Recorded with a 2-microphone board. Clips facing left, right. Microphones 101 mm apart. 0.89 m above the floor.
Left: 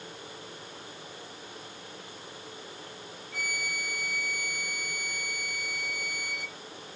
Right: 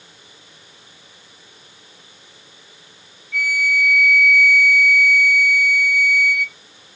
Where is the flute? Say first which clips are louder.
Right 14 dB; 75° right (ahead or behind), 1.8 m.